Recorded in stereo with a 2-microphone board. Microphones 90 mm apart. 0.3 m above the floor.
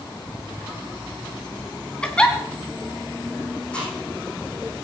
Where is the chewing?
10° left (ahead or behind), 9 m.